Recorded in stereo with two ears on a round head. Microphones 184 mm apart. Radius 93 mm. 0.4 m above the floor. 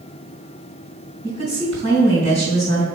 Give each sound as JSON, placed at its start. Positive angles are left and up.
{"t": 1.2, "sound": "a woman speaking", "side_deg": 30, "distance_m": 3.0}